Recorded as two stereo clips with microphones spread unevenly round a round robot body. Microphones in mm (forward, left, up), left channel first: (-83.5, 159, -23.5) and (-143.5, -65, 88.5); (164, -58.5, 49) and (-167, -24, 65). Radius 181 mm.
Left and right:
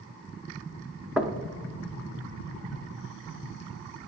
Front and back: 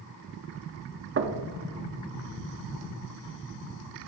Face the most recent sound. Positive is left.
turn(degrees=135)